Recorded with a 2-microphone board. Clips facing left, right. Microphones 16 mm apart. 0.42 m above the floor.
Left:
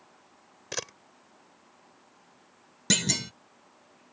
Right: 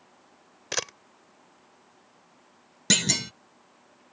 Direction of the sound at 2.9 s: 15° right (ahead or behind).